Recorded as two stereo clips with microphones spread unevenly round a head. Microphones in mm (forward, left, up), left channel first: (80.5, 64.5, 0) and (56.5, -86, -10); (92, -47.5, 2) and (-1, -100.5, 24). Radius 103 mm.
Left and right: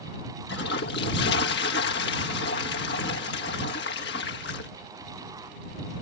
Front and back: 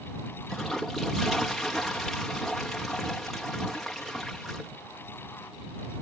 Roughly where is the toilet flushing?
Behind left.